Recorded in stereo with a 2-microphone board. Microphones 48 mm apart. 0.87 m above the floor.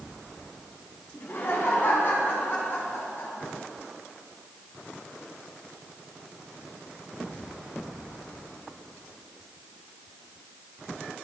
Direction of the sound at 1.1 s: 50° left (ahead or behind).